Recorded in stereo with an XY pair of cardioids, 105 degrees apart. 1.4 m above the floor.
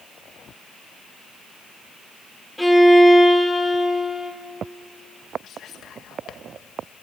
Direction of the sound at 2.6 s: Straight ahead.